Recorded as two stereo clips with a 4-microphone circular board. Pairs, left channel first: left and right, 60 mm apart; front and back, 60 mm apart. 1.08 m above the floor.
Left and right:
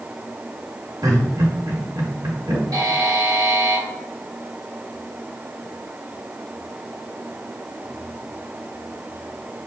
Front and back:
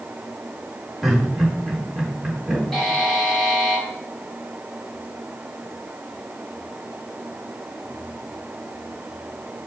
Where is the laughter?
95° right, 3.5 m.